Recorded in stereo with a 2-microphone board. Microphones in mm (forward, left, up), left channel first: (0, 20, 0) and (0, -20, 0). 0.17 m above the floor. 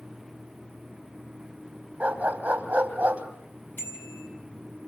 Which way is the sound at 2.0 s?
45° right (ahead or behind).